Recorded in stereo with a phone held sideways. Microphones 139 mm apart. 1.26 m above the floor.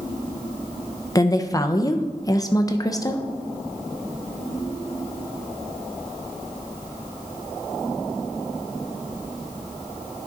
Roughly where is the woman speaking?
Left.